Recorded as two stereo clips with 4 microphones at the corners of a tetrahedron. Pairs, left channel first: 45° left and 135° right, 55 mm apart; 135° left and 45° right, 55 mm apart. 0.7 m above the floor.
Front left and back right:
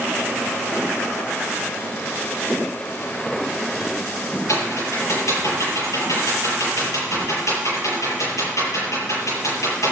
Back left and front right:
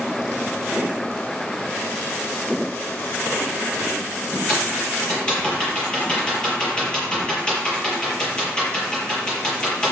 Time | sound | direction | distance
4.5 | typing on a keyboard | 60° left | 7.5 m